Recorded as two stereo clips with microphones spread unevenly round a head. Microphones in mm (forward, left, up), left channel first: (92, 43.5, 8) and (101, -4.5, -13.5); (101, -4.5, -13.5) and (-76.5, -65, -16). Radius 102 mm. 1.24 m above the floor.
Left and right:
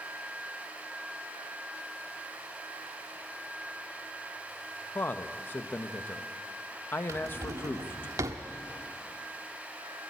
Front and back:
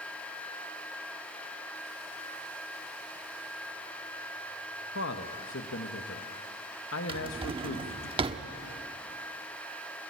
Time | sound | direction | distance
5.0 | a man speaking | 50° left | 1.3 m
7.1 | a drawer | 105° right | 1.0 m